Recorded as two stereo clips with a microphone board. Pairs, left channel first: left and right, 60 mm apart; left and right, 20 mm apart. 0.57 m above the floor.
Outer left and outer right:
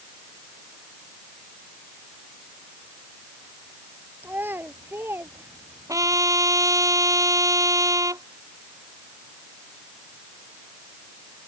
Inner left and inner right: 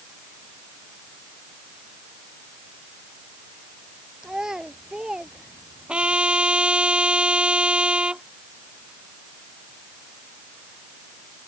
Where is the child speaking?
40° right (ahead or behind); by 6.2 s 50° right (ahead or behind).